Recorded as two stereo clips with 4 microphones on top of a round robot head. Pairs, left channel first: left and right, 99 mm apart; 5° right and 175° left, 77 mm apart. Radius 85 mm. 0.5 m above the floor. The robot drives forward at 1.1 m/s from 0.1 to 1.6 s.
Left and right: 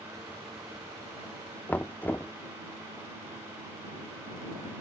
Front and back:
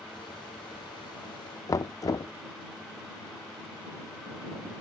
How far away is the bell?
No bell in this recording.